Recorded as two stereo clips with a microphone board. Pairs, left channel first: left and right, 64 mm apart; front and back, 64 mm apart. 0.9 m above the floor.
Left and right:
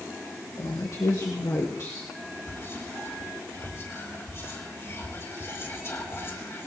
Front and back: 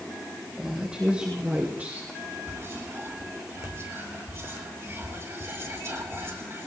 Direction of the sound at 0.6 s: 105° left.